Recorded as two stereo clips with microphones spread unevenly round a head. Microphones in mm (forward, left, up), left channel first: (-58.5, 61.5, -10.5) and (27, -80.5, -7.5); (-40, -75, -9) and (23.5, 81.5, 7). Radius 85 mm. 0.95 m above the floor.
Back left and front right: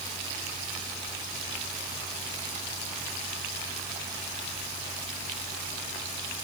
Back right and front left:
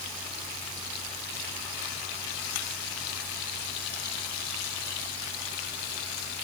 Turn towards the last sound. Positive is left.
No sound to turn to.